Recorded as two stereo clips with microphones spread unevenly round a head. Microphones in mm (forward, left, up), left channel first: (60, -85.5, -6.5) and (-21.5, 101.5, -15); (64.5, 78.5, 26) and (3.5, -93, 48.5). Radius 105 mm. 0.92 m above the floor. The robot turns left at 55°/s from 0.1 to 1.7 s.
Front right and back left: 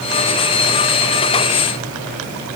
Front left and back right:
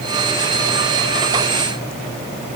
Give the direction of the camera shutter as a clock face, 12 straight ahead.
No camera shutter in this recording.